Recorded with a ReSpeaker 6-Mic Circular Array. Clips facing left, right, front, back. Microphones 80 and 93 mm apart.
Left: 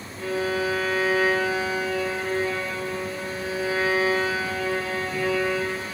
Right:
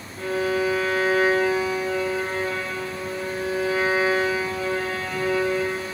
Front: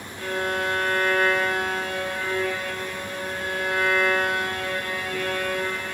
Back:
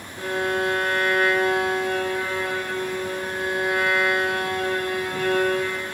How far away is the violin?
About 7.5 m.